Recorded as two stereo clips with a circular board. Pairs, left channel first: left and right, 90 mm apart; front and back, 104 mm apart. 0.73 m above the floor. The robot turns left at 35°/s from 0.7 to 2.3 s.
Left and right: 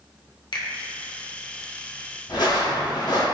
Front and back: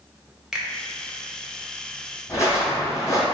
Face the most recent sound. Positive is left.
turn(degrees=60)